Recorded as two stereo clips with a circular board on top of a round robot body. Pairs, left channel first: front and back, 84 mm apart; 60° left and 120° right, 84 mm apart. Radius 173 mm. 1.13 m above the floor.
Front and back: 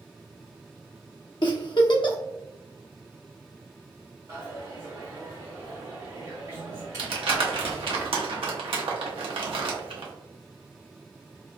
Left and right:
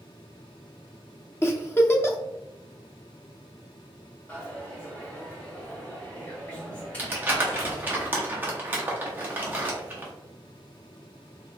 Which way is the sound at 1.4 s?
Straight ahead.